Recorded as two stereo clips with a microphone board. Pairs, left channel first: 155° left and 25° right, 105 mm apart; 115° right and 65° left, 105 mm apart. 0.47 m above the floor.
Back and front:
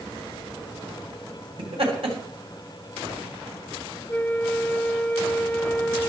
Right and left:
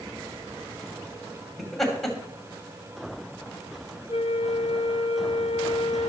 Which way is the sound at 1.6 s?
25° right.